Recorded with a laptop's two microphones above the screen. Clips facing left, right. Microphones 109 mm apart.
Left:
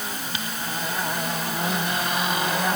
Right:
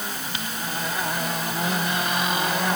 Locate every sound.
Only background noise.